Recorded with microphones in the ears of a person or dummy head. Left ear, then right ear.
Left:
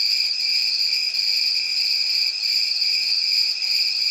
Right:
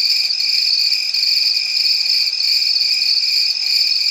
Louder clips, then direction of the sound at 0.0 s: Right 5 dB; 20° right (ahead or behind).